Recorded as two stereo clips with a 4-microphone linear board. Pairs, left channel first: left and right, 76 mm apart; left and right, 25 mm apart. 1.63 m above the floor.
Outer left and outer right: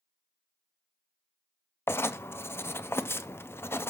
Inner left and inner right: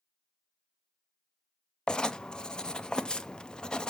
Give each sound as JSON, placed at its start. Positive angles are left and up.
{"t": 1.9, "sound": "writing", "side_deg": 30, "distance_m": 0.6}